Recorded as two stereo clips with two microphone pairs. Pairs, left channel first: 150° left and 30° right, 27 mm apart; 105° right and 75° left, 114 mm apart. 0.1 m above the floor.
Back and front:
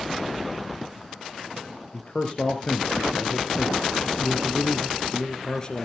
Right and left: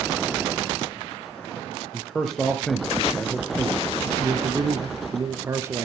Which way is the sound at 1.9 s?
165° left.